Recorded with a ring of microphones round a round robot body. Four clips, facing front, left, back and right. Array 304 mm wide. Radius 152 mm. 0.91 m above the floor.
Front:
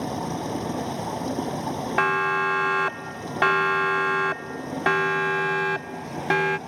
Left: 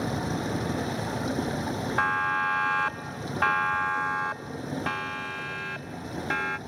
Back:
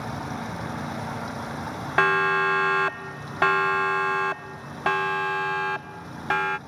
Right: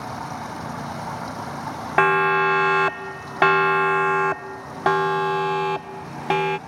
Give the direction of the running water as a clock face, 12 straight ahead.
11 o'clock.